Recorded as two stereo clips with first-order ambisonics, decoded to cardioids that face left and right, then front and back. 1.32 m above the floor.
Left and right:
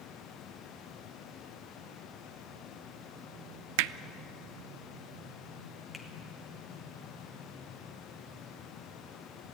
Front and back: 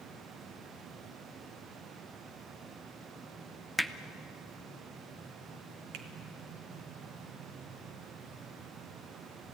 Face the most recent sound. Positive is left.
turn(degrees=175)